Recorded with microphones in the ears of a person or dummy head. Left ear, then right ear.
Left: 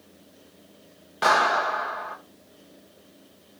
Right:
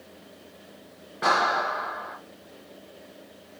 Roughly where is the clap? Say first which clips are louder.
Left 2 dB; centre.